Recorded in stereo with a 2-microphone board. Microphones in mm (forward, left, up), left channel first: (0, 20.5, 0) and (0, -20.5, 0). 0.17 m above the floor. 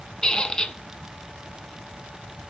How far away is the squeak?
About 0.7 m.